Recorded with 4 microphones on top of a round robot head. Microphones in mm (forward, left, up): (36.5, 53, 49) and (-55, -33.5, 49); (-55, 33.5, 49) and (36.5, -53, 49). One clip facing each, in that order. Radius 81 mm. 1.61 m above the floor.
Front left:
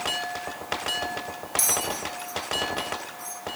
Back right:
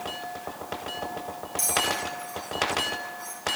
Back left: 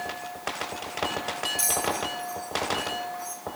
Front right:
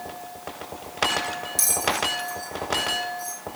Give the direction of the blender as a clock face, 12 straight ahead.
I don't hear a blender.